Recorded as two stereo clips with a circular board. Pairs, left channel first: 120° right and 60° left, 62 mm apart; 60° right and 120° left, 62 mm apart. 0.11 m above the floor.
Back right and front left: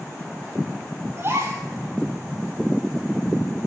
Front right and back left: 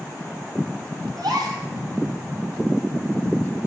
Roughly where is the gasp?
Left.